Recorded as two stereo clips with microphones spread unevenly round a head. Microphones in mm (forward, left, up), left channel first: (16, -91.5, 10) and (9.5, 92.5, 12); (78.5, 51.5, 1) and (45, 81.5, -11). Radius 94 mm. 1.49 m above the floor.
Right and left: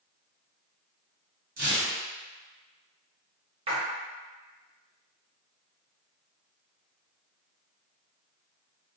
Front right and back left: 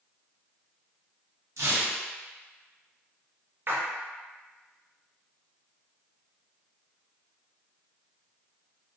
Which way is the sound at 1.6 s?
130° left.